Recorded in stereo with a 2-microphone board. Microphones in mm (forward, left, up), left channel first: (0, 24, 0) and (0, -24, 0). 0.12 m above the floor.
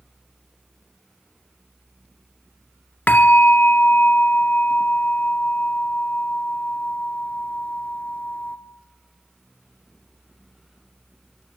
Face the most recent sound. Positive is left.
turn(degrees=40)  # may be behind; listen again after turning